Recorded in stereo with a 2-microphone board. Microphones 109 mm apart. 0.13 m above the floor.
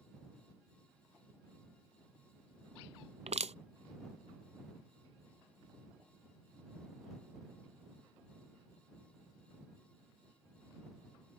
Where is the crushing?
80° right.